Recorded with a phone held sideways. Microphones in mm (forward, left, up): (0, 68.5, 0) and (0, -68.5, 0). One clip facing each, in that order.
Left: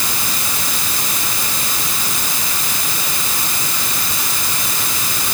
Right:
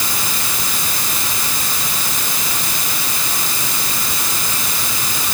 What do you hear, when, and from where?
Only background noise.